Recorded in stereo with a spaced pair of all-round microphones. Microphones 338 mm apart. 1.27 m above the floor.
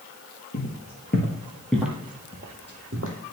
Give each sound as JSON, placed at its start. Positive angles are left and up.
{"t": 0.5, "sound": "footsteps", "side_deg": 45, "distance_m": 1.8}